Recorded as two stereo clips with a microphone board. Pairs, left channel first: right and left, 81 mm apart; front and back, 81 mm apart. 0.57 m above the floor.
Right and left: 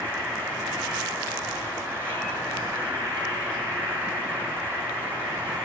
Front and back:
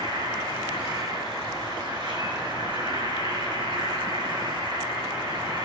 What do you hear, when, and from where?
0.0 s an insect: 150° left, 7.5 m